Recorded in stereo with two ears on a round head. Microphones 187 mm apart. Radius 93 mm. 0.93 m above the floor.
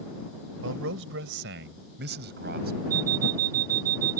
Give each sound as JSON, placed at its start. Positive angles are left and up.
{"t": 0.6, "sound": "a man speaking", "side_deg": -70}
{"t": 2.9, "sound": "an alarm clock", "side_deg": -40}